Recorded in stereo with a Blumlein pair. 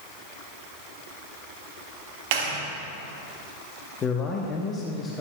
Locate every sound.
2.3 s a clap: 50° right, 1.8 m
4.0 s a man speaking: 20° left, 1.0 m